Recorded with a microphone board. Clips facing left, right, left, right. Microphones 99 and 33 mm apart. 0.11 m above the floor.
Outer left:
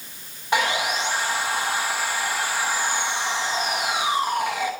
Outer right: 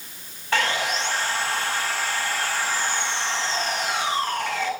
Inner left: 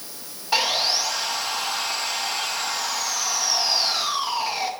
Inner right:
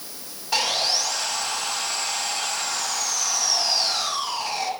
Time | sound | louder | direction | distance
0.5 | sawing | outer left 1 dB, inner left 1 dB | 15° left (ahead or behind) | 4 m